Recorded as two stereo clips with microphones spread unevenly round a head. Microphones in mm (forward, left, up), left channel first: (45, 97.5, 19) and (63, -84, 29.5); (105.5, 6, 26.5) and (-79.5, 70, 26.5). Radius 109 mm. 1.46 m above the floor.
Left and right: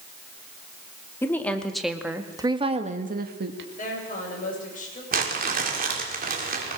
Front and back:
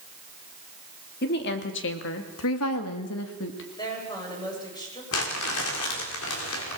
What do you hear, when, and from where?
1.2 s a woman speaking: 20° left, 3 m; by 3.7 s 60° right, 2 m
3.8 s a woman speaking: 50° left, 9 m
5.1 s crumpling: 45° right, 4 m